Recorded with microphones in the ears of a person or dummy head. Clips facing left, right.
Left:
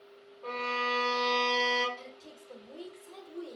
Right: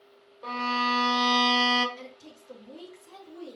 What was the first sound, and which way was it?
A violin, 65° right (ahead or behind).